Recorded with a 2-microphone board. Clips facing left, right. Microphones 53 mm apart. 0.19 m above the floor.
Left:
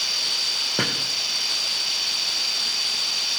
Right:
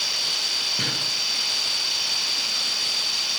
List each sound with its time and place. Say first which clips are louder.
0.8 s a drawer: left 6 dB; 80° left, 4.5 m